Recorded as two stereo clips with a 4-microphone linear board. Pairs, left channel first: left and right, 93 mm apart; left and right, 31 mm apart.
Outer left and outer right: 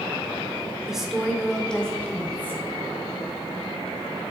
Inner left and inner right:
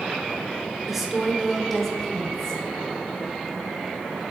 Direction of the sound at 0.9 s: 5° right (ahead or behind).